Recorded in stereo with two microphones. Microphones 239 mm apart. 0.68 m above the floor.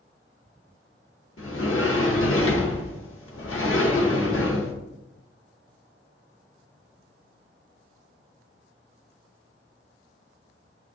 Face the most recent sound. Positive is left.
turn(degrees=60)  # may be behind; listen again after turning